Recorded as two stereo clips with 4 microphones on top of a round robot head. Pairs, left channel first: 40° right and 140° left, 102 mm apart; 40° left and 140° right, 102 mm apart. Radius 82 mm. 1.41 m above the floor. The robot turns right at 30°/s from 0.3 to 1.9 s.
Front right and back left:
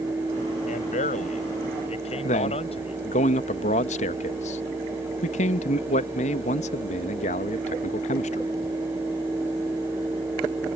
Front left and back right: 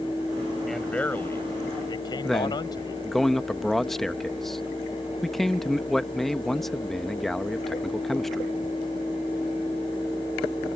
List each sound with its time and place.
0.7 s a man speaking: 50° right; by 3.0 s 10° right
2.2 s a man speaking: 50° right